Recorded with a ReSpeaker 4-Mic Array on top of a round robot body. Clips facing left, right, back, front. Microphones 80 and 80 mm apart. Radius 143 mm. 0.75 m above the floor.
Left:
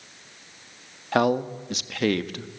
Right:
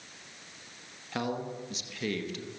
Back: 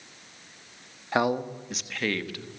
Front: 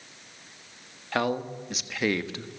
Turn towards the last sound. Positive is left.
turn(degrees=60)